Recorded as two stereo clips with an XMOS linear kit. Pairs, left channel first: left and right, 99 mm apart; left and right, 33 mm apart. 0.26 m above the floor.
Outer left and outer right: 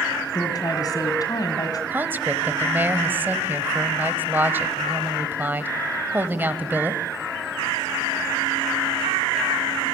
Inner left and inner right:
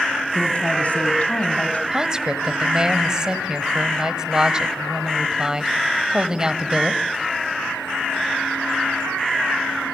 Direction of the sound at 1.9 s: 20° right (ahead or behind).